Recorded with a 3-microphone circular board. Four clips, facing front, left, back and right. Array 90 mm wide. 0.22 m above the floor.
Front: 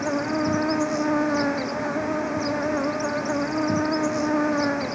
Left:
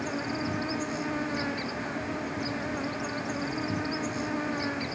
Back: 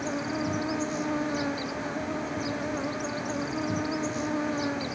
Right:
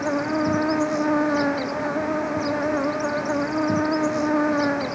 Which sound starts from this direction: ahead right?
An insect, at 0.0 s.